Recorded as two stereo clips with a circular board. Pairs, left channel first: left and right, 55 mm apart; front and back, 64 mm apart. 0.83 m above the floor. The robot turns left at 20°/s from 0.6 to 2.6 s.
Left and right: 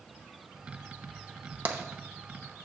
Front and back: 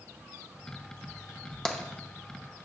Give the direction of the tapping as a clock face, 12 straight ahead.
2 o'clock.